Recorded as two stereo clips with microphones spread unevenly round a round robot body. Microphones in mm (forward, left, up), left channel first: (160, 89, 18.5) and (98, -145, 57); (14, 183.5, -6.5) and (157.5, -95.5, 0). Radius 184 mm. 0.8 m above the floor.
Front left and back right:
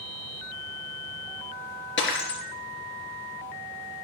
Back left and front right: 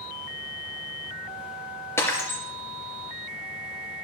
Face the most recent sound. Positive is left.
turn(degrees=35)